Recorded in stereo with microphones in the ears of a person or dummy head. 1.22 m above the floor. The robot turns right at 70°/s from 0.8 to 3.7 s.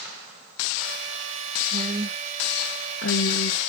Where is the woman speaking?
30° right (ahead or behind), 2 m; by 3.6 s 75° left (ahead or behind), 2 m.